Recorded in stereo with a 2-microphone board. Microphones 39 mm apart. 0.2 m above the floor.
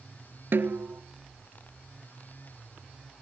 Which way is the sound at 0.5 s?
70° right (ahead or behind).